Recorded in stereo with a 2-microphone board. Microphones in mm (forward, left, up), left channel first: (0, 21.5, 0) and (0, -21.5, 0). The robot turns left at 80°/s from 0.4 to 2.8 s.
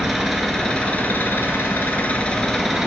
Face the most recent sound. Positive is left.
turn(degrees=-10)